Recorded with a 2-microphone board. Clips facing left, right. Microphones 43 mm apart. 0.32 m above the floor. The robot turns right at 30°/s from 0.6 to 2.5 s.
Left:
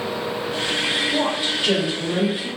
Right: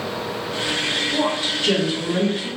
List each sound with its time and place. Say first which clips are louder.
1.1 s a woman speaking: even; 15° left (ahead or behind), 1.0 m; by 2.5 s 5° left (ahead or behind), 1.0 m